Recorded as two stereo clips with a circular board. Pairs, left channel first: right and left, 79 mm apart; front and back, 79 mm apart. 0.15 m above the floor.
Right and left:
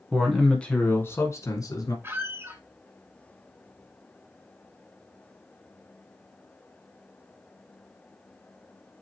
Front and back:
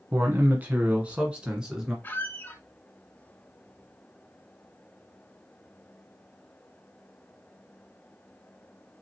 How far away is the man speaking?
About 1.2 m.